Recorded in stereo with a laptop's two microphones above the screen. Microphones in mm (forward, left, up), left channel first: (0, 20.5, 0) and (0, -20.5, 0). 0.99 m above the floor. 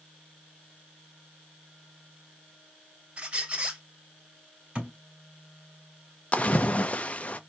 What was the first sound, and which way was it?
A squeak, 35° right (ahead or behind).